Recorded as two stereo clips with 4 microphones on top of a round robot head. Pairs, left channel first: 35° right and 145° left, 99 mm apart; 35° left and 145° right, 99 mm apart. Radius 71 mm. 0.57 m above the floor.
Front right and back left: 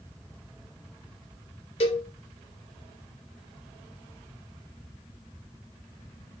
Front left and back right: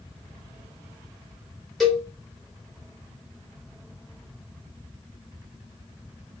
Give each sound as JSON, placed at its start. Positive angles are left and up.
{"t": 1.8, "sound": "a cowbell", "azimuth_deg": -55, "distance_m": 0.9}